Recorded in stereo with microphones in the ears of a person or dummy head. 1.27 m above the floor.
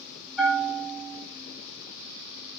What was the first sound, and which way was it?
A bell, 5° right (ahead or behind).